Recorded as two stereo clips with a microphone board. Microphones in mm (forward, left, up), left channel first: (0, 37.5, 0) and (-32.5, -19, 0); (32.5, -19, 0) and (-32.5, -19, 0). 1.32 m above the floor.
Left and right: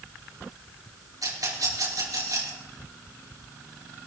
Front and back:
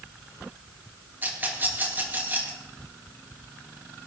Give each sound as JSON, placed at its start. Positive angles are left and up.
{"t": 1.2, "sound": "a rattle", "azimuth_deg": -125, "distance_m": 3.5}